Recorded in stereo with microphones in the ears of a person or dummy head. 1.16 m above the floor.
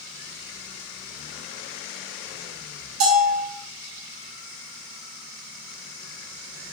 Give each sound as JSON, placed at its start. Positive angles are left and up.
{"t": 3.0, "sound": "a bell", "side_deg": -85, "distance_m": 1.6}